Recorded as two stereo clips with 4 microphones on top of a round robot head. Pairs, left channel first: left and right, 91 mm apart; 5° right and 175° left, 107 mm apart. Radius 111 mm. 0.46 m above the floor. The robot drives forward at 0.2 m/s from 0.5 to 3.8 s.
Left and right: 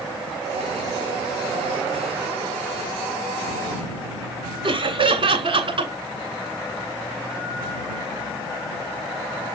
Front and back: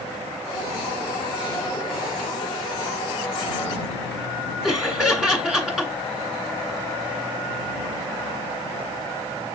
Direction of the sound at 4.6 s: 100° right.